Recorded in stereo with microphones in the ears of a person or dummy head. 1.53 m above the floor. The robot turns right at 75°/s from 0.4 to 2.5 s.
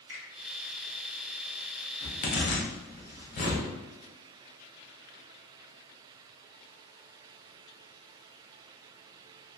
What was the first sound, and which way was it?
A finger snap, 70° right (ahead or behind).